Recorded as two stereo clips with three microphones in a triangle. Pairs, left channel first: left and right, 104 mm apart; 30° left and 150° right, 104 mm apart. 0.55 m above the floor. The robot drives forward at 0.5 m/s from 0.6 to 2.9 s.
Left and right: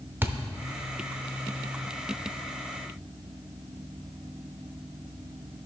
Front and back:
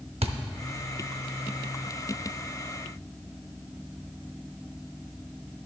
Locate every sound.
0.2 s a thud: 160° right, 0.6 m